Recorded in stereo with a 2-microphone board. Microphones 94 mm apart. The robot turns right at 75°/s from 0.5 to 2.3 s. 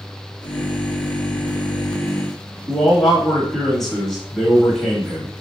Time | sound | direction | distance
2.7 | a man speaking | 5° left (ahead or behind) | 1.1 m